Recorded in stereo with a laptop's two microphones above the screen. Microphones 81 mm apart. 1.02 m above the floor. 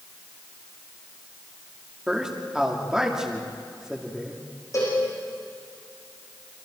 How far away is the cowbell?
About 9.5 m.